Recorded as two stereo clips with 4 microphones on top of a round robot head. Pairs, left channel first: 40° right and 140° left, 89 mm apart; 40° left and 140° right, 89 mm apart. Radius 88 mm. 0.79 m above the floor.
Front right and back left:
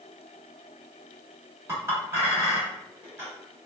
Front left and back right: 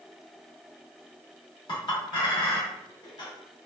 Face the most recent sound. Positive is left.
turn(degrees=75)